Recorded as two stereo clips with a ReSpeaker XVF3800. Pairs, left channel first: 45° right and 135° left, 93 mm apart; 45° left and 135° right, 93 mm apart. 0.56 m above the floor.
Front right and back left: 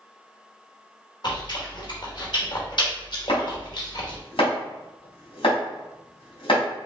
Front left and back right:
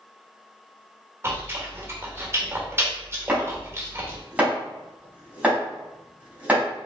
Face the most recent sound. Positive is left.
turn(degrees=-60)